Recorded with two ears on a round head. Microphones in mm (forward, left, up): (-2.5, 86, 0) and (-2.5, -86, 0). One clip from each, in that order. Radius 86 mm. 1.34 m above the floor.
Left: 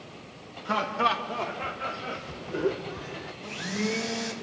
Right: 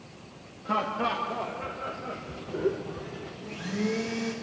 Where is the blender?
50° left (ahead or behind), 2.0 m.